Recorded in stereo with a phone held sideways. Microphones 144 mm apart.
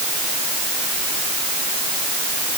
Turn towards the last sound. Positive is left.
No sound to turn to.